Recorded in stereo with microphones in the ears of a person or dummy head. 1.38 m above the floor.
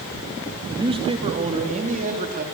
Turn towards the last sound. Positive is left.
turn(degrees=-45)  # may be behind; listen again after turning